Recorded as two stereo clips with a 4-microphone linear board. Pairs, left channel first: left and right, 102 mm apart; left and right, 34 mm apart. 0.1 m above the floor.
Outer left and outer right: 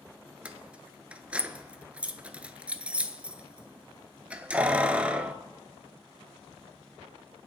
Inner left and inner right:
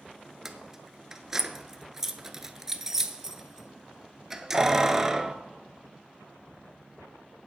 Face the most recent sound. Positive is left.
turn(degrees=-10)  # may be behind; listen again after turning